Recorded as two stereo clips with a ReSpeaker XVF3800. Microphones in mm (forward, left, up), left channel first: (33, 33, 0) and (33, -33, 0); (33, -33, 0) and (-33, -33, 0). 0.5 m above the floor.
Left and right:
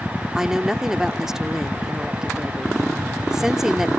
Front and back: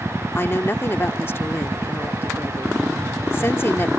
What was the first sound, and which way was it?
A woman speaking, 10° right.